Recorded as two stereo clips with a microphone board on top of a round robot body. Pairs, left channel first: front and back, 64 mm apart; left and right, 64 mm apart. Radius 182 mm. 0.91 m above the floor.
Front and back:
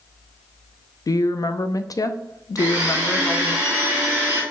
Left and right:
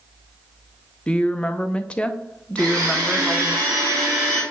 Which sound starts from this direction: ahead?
A woman speaking, at 1.1 s.